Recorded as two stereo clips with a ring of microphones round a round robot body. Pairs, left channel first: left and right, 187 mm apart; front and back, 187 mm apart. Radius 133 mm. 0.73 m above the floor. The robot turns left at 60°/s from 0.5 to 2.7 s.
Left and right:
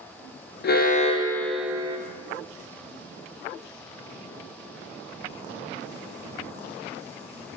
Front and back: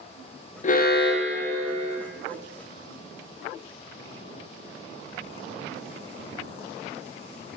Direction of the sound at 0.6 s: 55° left.